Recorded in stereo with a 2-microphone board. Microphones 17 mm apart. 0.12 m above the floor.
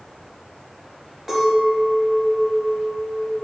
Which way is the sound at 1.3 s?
Centre (ahead or behind).